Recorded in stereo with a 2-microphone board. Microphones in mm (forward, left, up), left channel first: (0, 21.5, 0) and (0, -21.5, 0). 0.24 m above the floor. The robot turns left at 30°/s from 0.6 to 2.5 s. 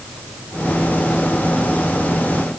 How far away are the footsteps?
No footsteps in this recording.